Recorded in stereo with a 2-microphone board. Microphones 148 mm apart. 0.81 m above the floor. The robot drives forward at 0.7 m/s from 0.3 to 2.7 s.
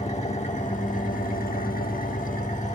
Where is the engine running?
50° left (ahead or behind), 1.5 m; by 2.8 s 55° left (ahead or behind), 1.4 m.